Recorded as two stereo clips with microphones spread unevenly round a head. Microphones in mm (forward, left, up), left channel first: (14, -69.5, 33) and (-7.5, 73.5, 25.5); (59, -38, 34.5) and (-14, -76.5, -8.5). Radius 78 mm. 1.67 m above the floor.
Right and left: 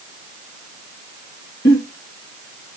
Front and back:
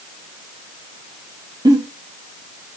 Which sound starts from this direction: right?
A giggle, at 1.6 s.